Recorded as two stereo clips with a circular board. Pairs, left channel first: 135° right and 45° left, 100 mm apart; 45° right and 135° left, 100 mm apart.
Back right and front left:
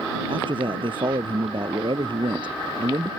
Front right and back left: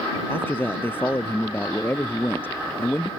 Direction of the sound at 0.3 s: 20° left.